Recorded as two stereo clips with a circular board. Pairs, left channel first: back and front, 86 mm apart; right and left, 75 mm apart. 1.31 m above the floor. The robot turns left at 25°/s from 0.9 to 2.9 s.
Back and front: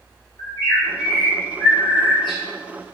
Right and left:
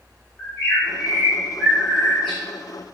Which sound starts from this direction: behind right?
A bird, at 0.4 s.